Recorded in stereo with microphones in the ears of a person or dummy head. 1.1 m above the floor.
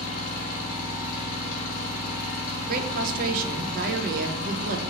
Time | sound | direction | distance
0.0 | an engine running | 50° left (ahead or behind) | 1.1 m
2.7 | a woman speaking | 50° right (ahead or behind) | 0.5 m